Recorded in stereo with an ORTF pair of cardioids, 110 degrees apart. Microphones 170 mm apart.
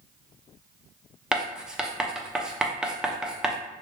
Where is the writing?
5° right, 0.5 m.